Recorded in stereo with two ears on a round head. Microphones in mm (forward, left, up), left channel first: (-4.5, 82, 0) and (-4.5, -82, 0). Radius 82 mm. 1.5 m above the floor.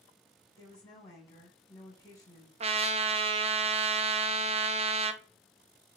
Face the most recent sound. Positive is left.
turn(degrees=-35)  # may be behind; listen again after turning